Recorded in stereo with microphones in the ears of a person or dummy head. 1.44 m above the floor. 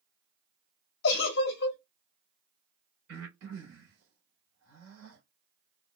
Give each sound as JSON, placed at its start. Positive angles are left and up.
{"t": 1.0, "sound": "a giggle", "side_deg": 60, "distance_m": 1.7}
{"t": 3.1, "sound": "breathing", "side_deg": -60, "distance_m": 2.5}